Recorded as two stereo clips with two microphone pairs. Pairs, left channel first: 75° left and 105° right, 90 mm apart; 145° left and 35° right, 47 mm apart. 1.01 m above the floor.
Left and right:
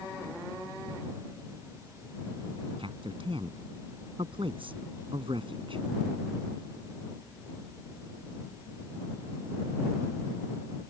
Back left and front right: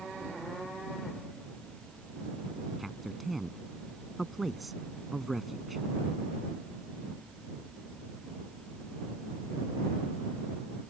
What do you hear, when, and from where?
2.8 s a man speaking: 125° right